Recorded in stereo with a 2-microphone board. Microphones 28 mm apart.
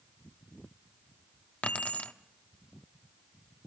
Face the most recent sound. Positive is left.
turn(degrees=60)  # may be behind; listen again after turning